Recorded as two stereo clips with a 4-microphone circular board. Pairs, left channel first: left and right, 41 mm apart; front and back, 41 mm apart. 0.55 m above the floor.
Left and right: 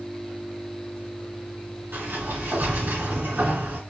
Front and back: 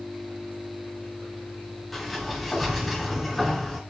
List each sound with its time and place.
1.9 s a sliding door: 95° right, 2 m